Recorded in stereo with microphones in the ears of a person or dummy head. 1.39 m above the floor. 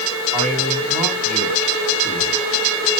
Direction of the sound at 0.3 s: 10° left (ahead or behind).